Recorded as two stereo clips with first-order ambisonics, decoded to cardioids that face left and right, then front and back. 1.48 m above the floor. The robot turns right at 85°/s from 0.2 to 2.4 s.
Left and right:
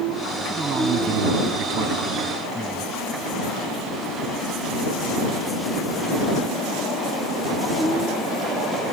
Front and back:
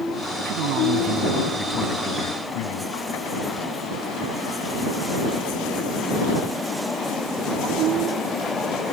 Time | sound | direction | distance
0.5 | a man speaking | 175° right | ?